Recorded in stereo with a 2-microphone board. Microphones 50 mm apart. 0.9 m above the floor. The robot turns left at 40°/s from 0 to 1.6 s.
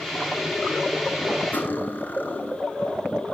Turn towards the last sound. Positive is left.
turn(degrees=40)  # may be behind; listen again after turning